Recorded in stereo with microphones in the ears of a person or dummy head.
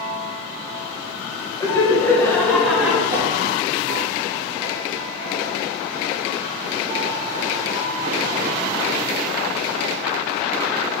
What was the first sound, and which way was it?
Laughter, 20° left (ahead or behind).